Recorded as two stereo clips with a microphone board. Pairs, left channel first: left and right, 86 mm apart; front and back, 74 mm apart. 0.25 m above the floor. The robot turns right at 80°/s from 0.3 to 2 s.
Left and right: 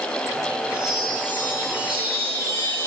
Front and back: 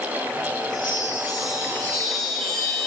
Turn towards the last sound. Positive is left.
turn(degrees=85)